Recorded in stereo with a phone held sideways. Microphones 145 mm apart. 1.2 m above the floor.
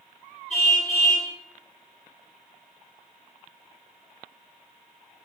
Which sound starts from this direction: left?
A car horn, at 0.5 s.